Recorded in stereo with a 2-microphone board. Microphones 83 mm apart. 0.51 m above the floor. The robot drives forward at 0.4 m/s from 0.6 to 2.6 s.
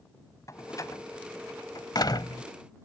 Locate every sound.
0.5 s a door slam: 40° left (ahead or behind); by 2.4 s 60° left (ahead or behind)